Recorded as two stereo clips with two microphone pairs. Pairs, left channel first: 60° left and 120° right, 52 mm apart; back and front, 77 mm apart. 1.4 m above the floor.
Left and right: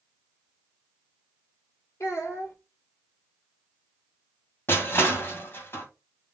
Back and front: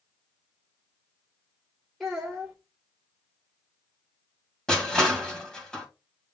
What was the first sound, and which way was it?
A child speaking, 90° left.